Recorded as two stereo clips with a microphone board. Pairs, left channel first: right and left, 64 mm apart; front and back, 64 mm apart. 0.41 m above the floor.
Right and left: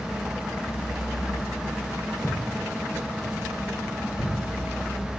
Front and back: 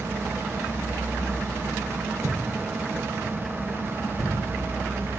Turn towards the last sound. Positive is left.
turn(degrees=70)